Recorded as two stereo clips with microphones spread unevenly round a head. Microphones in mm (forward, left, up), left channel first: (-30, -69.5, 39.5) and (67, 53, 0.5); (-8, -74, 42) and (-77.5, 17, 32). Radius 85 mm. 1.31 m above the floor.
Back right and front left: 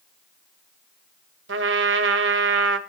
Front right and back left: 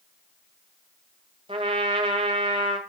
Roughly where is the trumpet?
Ahead left.